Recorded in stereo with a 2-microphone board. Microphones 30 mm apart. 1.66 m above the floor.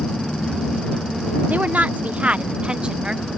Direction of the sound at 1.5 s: 60° right (ahead or behind).